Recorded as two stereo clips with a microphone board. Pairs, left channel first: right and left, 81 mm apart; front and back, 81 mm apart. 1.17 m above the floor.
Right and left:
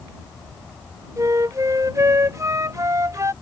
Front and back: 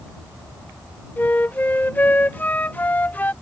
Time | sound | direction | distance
1.2 | a flute | 60° left | ?